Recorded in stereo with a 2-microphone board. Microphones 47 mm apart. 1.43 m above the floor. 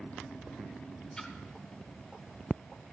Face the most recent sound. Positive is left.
turn(degrees=15)  # may be behind; listen again after turning